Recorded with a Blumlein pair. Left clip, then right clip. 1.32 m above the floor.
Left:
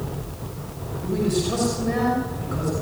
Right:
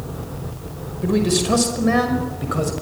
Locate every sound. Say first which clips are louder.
1.0 s a man speaking: right 5 dB; 30° right, 5.5 m; by 2.7 s 25° right, 6.5 m